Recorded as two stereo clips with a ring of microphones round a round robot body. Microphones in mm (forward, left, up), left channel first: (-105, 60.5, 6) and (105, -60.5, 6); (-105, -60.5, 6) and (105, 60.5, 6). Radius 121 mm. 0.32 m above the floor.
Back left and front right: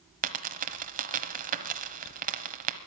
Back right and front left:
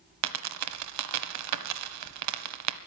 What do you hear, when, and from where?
0.2 s a dropped coin: 25° left, 1.0 m